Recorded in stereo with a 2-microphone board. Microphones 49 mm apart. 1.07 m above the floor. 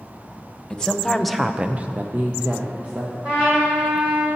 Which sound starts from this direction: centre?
A woman speaking, at 0.7 s.